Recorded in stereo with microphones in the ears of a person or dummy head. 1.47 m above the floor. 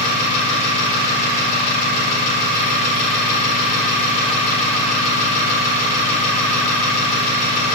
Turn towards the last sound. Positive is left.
turn(degrees=45)  # may be behind; listen again after turning